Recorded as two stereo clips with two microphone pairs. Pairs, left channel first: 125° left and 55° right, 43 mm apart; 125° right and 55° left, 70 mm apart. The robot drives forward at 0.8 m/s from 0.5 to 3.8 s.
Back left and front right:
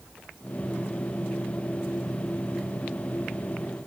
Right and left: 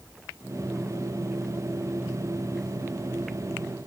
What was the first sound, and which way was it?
Only background noise.